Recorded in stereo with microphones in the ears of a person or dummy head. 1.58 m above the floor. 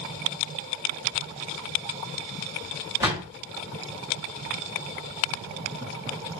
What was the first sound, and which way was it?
A door slam, 15° right (ahead or behind).